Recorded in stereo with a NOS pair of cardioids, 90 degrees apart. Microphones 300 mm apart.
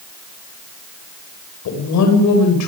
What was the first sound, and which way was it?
A woman speaking, 70° left.